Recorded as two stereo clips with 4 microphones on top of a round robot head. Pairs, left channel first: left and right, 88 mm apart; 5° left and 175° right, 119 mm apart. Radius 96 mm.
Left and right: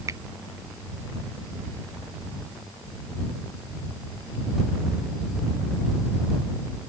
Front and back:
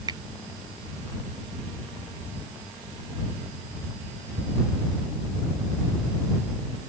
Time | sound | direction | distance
0.1 | a finger snap | 135° right | ?